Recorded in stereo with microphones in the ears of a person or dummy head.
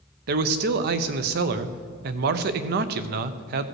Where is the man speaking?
60° right (ahead or behind), 0.7 m.